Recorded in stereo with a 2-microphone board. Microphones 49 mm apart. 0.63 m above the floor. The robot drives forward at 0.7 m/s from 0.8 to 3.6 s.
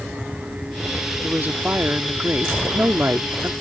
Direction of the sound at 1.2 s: 40° right (ahead or behind).